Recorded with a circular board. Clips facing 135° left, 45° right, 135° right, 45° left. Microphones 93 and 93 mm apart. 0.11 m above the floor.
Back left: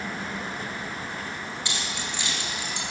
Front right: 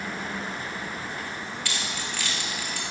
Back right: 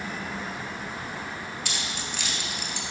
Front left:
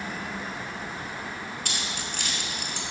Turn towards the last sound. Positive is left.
turn(degrees=70)